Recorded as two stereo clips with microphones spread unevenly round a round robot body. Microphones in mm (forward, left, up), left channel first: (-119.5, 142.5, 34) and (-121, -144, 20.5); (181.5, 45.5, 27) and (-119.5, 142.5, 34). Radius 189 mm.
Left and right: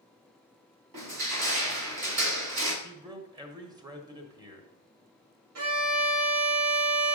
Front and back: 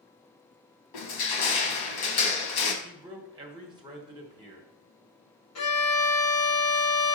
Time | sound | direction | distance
0.9 | crushing | 45° right | 1.0 m
2.8 | a man speaking | 135° right | 1.2 m
5.5 | a violin | 55° right | 1.0 m